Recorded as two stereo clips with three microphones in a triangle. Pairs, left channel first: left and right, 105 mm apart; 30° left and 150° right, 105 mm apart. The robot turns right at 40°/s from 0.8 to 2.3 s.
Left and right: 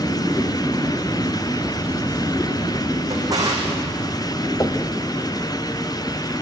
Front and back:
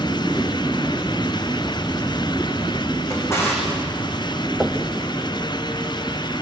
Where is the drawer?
35° right, 5.5 m.